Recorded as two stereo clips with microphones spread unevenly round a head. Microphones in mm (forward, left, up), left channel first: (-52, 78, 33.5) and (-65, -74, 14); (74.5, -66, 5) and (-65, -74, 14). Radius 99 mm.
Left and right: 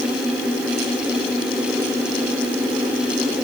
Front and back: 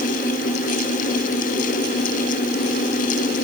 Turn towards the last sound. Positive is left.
No sound to turn to.